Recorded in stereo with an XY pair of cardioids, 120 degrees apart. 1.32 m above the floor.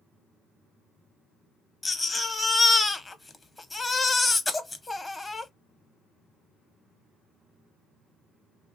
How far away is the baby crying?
About 0.5 m.